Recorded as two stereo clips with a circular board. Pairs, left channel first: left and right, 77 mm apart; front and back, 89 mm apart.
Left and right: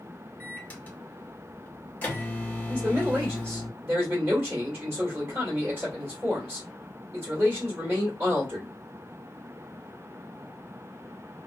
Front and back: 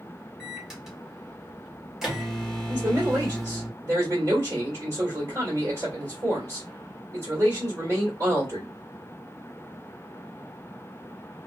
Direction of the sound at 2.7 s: 140° right.